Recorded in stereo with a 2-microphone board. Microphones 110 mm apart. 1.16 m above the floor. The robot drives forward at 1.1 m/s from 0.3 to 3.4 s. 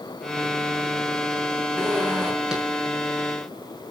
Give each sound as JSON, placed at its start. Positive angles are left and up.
{"t": 1.8, "sound": "a zipper", "side_deg": -5, "distance_m": 6.0}